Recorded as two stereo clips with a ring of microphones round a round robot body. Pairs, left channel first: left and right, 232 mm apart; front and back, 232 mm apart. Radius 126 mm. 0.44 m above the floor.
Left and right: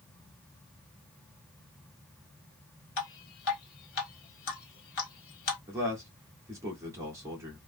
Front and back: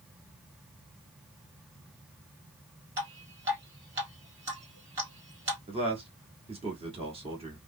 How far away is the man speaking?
About 1.4 m.